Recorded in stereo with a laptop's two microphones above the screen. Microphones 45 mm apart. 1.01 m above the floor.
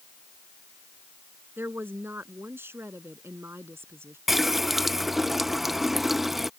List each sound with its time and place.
1.6 s a woman speaking: 45° right (ahead or behind); by 4.2 s 55° right (ahead or behind)
4.3 s a running tap: 5° right (ahead or behind)